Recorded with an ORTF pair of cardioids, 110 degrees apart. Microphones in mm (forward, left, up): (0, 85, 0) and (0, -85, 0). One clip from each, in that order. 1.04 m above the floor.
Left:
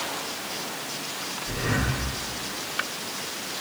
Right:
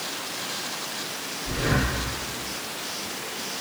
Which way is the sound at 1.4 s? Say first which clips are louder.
Right 3 dB; 50° right.